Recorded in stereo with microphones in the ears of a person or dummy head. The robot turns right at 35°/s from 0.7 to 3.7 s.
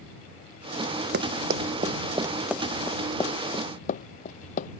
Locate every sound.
1.1 s running footsteps: 60° right (ahead or behind); by 4.7 s 50° left (ahead or behind)